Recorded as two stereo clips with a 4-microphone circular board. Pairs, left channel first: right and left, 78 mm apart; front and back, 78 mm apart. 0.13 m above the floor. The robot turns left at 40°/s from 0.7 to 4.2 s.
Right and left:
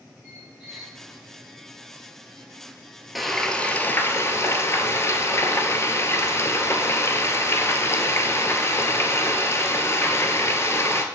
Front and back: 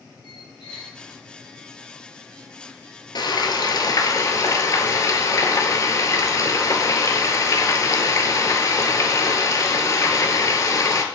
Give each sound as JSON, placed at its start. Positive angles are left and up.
{"t": 0.2, "sound": "a squeak", "azimuth_deg": 10, "distance_m": 3.5}
{"t": 3.1, "sound": "frying", "azimuth_deg": 0, "distance_m": 0.7}